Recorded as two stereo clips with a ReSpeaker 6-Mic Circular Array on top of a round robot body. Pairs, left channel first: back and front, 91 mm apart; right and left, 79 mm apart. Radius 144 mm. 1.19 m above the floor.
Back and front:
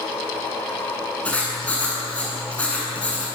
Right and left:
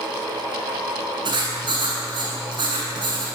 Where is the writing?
105° left, 8.5 m.